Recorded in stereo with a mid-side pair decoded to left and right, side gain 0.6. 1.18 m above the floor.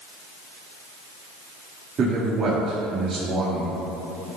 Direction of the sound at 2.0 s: 40° right.